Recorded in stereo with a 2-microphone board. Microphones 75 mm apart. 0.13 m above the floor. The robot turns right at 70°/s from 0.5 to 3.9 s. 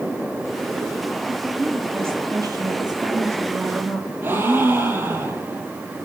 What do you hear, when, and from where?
1.3 s a woman speaking: 165° left, 4 m; by 4.1 s 15° right, 4 m
4.2 s a gasp: 30° right (ahead or behind), 3.5 m